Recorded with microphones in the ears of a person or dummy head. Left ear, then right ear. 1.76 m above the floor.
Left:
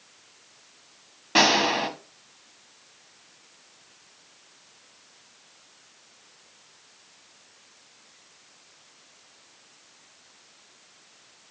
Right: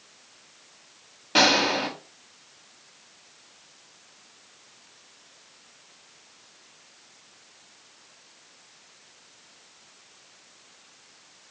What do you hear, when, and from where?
1.4 s a gunshot: 10° left (ahead or behind), 1.2 m